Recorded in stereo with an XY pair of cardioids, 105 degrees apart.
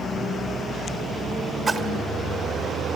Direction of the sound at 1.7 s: 30° right.